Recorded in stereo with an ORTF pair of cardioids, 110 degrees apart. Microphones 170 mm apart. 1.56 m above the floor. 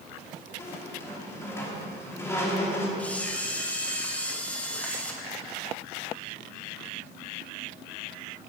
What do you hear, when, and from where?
0.6 s a squeak: 15° left, 2.5 m
3.0 s a camera shutter: 10° left, 1.4 m